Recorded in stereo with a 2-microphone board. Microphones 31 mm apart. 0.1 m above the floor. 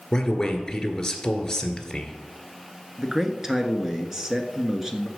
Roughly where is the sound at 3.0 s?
Centre.